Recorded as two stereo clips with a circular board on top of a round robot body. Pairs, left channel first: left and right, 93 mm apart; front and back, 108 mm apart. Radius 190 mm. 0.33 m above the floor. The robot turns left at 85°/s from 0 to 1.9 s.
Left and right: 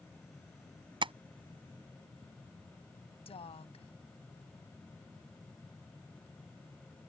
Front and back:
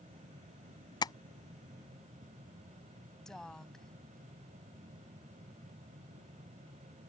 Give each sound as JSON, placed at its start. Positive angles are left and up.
{"t": 1.0, "sound": "tapping", "azimuth_deg": -50}
{"t": 3.2, "sound": "a woman speaking", "azimuth_deg": 85}